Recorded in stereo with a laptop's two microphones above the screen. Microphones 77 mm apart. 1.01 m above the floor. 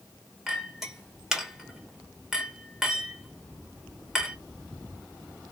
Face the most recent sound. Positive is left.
turn(degrees=-5)  # may be behind; listen again after turning